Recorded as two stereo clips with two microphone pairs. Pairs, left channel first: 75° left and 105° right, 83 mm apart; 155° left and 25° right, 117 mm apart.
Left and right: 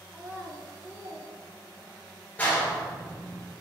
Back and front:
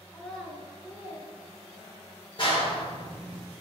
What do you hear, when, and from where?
0.1 s a child speaking: 150° right, 0.8 m; by 2.2 s 85° right, 1.6 m
2.4 s a clap: 140° left, 1.8 m